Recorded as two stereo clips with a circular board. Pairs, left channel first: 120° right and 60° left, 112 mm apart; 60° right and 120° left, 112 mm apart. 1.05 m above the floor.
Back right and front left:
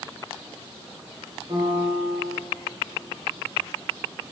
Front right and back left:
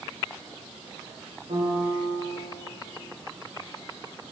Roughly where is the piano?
Left.